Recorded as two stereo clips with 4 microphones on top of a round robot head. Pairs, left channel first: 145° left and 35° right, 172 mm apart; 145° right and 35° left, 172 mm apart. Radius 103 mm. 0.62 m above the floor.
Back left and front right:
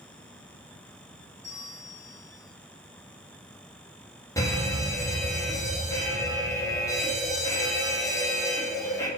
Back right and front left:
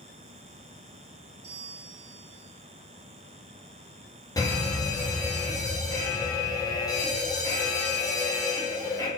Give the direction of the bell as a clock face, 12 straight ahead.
11 o'clock.